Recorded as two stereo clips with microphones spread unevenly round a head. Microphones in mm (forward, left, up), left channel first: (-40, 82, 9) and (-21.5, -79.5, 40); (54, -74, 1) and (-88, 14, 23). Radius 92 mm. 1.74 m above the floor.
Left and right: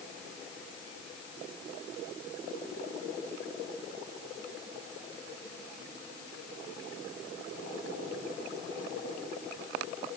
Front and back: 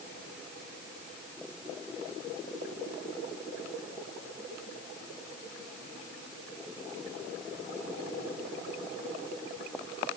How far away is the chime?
I don't hear a chime.